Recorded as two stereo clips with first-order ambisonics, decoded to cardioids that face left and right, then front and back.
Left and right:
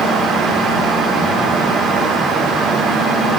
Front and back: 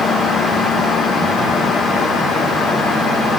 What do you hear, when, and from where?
Only background noise.